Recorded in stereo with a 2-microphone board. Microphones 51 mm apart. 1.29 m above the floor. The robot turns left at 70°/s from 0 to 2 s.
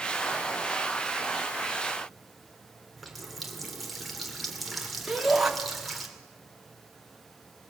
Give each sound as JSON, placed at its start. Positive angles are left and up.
{"t": 3.0, "sound": "a running tap", "side_deg": 0, "distance_m": 3.0}
{"t": 5.1, "sound": "a shout", "side_deg": -5, "distance_m": 3.0}